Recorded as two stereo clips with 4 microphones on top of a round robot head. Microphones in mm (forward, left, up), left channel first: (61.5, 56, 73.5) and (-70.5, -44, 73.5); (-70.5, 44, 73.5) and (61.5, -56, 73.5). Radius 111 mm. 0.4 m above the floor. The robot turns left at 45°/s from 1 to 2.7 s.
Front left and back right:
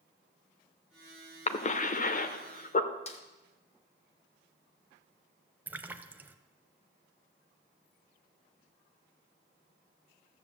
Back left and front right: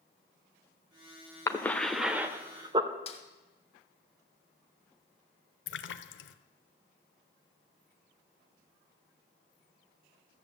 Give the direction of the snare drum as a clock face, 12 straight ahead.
9 o'clock.